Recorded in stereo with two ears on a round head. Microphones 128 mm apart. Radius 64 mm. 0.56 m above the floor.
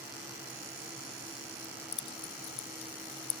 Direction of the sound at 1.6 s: 40° left (ahead or behind).